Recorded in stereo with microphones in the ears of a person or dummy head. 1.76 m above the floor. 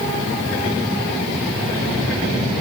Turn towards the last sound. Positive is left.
No sound to turn to.